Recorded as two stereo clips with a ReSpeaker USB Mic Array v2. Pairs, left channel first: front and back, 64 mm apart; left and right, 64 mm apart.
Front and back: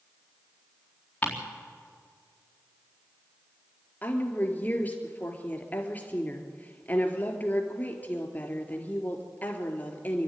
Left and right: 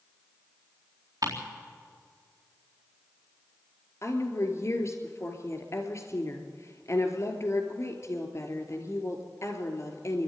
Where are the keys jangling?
I don't hear keys jangling.